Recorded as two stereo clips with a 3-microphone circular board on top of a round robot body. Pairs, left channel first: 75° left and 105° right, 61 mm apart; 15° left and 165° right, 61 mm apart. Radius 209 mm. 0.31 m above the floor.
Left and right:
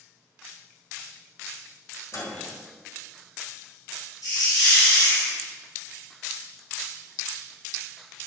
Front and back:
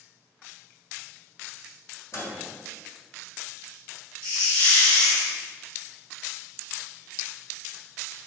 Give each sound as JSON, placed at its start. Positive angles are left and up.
{"t": 2.1, "sound": "a microwave", "azimuth_deg": 50, "distance_m": 2.5}
{"t": 4.2, "sound": "a hiss", "azimuth_deg": 70, "distance_m": 3.5}